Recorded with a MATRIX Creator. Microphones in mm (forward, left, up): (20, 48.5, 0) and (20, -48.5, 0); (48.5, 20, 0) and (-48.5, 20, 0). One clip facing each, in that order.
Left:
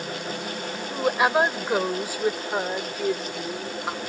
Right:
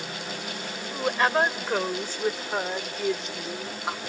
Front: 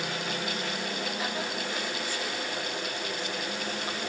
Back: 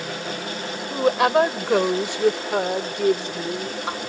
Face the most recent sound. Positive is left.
turn(degrees=-175)